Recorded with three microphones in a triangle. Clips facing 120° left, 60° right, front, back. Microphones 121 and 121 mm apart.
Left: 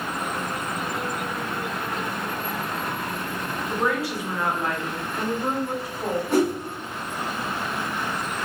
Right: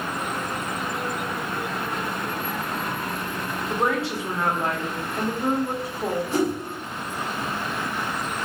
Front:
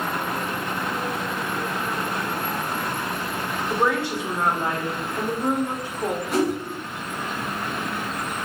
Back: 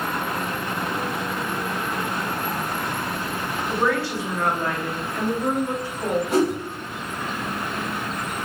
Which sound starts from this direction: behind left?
A whoosh, at 6.3 s.